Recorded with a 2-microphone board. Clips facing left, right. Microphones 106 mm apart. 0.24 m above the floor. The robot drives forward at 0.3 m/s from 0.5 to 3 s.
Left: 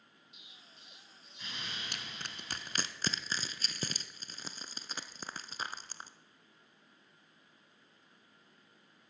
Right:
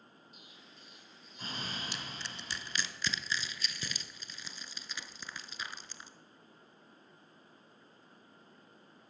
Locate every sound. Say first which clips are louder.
0.3 s an explosion: right 4 dB; 45° right (ahead or behind), 2 m; by 2.9 s 35° right (ahead or behind), 2.5 m
1.9 s crushing: right 2 dB; 60° left (ahead or behind), 0.8 m; by 6.1 s 45° left (ahead or behind), 1.0 m